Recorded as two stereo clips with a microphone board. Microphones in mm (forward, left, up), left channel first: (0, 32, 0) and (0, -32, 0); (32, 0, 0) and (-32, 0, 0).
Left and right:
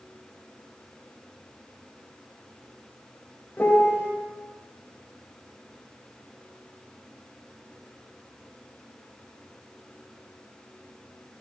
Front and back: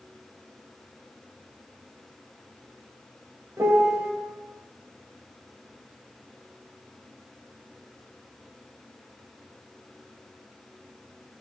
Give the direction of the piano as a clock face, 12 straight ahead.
7 o'clock.